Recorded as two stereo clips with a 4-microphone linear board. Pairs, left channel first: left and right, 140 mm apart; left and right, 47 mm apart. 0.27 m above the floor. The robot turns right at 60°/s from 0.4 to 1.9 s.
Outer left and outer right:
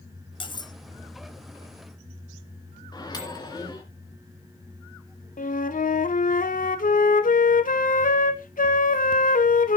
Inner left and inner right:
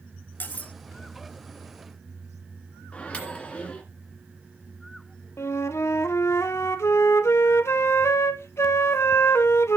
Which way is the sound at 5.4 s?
75° left (ahead or behind).